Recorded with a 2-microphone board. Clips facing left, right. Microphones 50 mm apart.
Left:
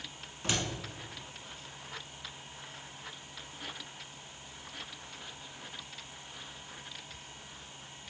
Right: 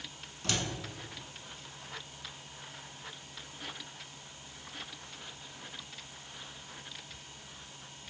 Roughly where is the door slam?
Left.